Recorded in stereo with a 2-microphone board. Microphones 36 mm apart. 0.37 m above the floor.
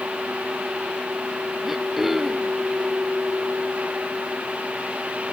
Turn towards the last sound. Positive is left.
turn(degrees=-5)  # may be behind; listen again after turning